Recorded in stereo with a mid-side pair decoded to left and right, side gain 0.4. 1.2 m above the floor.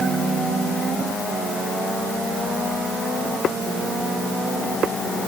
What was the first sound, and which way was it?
Only background noise.